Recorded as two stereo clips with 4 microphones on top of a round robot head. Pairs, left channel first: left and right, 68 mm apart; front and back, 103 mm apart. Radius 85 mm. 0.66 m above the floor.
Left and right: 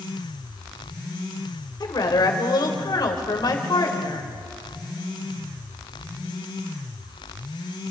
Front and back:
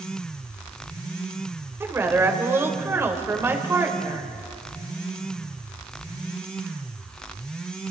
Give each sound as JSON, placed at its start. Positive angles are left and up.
{"t": 1.8, "sound": "a woman speaking", "azimuth_deg": 110, "distance_m": 3.0}